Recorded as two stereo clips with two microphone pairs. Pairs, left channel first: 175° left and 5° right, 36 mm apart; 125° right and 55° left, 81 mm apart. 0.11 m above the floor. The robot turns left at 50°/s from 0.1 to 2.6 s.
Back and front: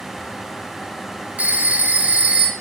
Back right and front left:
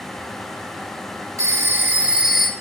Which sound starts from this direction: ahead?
A phone ringing, at 1.4 s.